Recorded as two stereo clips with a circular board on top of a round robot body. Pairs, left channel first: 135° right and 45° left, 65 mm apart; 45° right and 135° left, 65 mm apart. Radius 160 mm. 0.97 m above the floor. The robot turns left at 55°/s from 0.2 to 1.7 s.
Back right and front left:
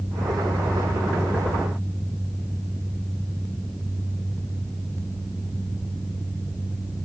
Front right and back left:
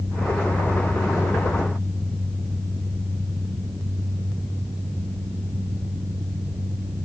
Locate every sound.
Only background noise.